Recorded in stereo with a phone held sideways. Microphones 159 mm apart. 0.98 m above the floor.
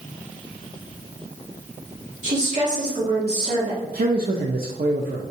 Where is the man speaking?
70° right (ahead or behind), 0.5 m.